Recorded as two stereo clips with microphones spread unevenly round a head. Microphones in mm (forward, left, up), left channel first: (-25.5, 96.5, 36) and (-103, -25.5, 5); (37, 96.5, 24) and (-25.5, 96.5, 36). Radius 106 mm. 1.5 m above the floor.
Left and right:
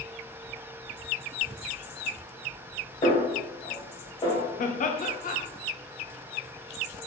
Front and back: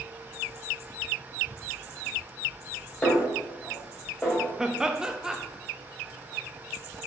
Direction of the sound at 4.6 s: 95° left.